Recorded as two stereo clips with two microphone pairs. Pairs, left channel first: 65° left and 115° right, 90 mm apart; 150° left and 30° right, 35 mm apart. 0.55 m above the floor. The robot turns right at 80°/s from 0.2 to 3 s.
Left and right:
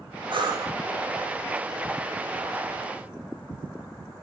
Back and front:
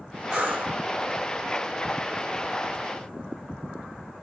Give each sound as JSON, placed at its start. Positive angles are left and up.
{"t": 0.3, "sound": "breathing", "azimuth_deg": -90, "distance_m": 1.6}